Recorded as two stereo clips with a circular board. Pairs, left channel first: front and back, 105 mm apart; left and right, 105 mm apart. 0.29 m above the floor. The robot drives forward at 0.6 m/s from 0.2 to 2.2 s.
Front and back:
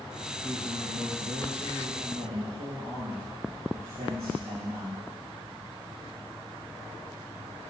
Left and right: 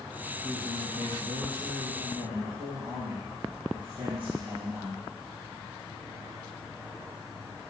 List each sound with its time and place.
0.4 s a man speaking: 130° right, 4 m; by 5.0 s 140° right, 4.5 m